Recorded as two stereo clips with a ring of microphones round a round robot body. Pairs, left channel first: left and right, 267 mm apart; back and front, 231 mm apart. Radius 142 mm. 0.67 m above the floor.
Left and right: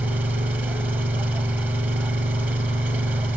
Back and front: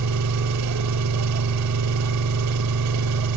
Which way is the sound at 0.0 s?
5° right.